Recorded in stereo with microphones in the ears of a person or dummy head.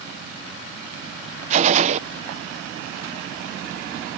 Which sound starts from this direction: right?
A gunshot, at 1.5 s.